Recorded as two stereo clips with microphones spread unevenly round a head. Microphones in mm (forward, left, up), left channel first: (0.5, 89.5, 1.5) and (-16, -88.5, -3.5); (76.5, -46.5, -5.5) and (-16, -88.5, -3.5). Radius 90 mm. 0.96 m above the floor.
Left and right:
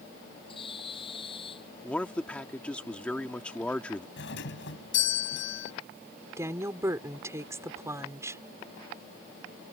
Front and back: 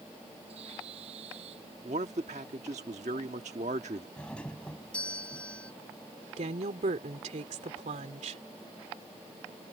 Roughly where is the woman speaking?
Behind.